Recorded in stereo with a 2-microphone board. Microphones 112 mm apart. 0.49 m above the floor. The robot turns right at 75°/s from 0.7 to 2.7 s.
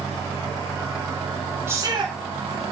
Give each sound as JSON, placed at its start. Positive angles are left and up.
{"t": 1.7, "sound": "a shout", "azimuth_deg": -160, "distance_m": 6.0}